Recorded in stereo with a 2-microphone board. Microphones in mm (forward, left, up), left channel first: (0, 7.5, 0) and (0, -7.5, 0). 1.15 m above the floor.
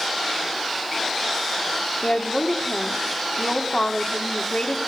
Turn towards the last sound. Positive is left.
turn(degrees=70)  # may be behind; listen again after turning